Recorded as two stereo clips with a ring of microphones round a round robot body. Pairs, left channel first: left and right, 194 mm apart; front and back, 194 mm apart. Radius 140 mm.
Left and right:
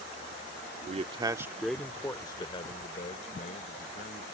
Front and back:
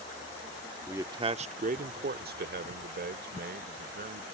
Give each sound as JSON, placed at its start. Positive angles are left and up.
{"t": 0.9, "sound": "a man speaking", "azimuth_deg": -105}